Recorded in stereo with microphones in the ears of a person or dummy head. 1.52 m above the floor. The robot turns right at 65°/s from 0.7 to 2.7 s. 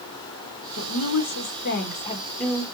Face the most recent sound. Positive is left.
turn(degrees=-170)